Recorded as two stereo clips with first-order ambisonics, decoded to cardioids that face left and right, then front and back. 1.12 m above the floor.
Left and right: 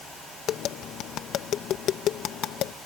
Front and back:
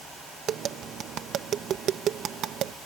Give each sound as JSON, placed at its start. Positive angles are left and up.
{"t": 0.5, "sound": "tapping", "azimuth_deg": 130}